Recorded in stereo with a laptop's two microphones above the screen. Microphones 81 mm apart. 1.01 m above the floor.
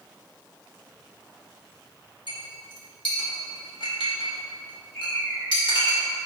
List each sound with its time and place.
2.3 s a clink: 75° left (ahead or behind), 1.9 m
4.9 s a bird: 40° left (ahead or behind), 2.5 m